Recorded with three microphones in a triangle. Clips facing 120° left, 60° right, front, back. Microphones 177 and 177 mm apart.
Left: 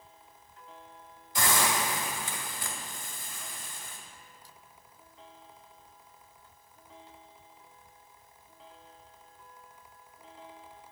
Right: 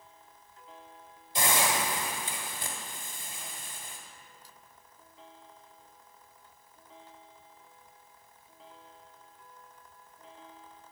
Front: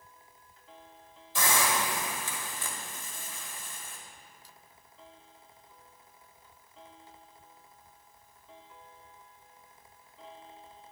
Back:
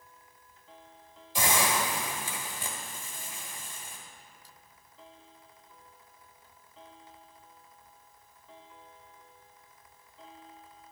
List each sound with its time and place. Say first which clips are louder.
1.4 s a hiss: even, back 1 dB; 110° right, 1.6 m